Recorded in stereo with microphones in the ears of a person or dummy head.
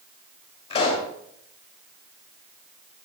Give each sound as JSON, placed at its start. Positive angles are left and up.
{"t": 0.7, "sound": "a pop", "side_deg": 30, "distance_m": 3.0}